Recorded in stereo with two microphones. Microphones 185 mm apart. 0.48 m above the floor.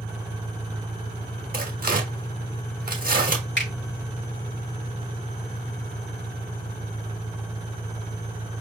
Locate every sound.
0.0 s an engine running: 5° left (ahead or behind), 1.1 m
1.5 s tearing paper: 50° right (ahead or behind), 1.3 m
3.6 s a finger snap: 75° left (ahead or behind), 4 m